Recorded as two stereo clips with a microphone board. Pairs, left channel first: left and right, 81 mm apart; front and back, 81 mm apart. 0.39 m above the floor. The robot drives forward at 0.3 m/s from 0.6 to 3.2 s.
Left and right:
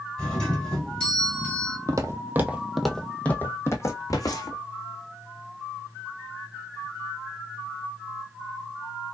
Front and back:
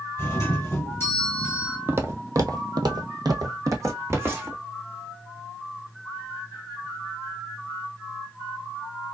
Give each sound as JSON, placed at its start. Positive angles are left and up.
{"t": 0.2, "sound": "a doorbell", "azimuth_deg": 20, "distance_m": 2.0}
{"t": 1.9, "sound": "footsteps", "azimuth_deg": -125, "distance_m": 0.7}